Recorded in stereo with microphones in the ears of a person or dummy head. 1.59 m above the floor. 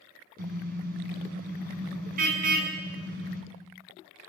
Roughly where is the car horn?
Right.